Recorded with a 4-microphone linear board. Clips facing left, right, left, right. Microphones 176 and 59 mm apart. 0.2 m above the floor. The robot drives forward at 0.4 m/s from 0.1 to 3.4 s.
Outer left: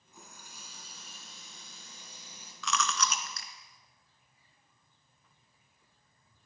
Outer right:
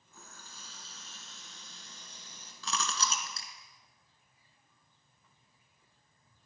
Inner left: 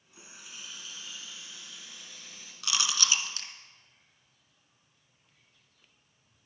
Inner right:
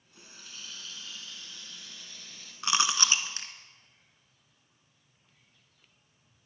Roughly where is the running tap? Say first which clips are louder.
Outer left 1 dB, inner left 1 dB; centre.